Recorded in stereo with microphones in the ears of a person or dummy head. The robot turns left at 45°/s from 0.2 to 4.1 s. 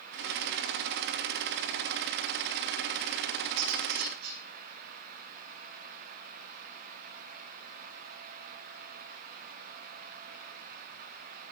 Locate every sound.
3.6 s cutlery clinking: 80° right, 7.5 m; by 4.4 s 55° right (ahead or behind), 7.5 m